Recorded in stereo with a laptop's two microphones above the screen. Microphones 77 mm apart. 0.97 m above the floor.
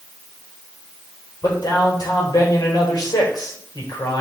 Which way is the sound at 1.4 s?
55° left (ahead or behind).